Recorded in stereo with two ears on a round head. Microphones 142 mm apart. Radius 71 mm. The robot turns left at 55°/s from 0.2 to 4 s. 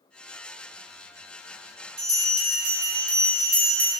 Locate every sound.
2.0 s a bell: 15° right, 1.7 m; by 3.9 s 120° right, 1.7 m